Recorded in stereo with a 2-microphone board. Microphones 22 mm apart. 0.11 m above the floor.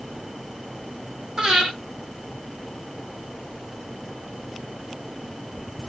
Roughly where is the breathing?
Right.